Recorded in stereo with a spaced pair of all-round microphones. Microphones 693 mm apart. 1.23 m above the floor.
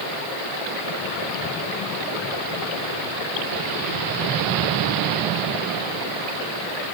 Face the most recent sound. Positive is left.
No sound to turn to.